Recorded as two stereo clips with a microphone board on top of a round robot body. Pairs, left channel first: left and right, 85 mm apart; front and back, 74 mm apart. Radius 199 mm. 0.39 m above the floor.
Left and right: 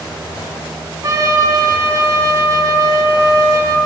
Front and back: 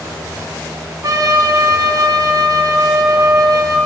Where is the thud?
No thud in this recording.